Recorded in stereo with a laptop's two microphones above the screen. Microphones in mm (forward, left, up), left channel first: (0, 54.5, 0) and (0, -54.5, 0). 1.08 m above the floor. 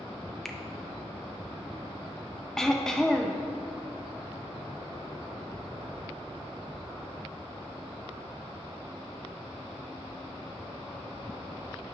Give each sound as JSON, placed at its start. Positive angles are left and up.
{"t": 0.5, "sound": "a finger snap", "side_deg": 5, "distance_m": 0.6}
{"t": 2.6, "sound": "throat clearing", "side_deg": 5, "distance_m": 0.5}